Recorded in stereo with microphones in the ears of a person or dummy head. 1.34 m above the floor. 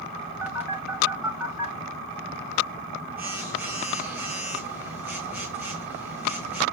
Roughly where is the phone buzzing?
Centre.